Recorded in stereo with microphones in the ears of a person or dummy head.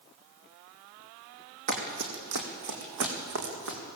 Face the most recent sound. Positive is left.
turn(degrees=-75)  # may be behind; listen again after turning